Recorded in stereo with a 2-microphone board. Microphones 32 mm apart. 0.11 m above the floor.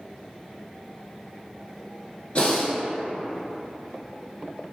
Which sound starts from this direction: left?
Breathing, at 2.4 s.